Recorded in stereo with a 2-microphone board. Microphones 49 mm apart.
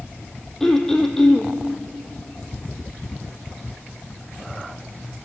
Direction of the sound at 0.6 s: 10° left (ahead or behind).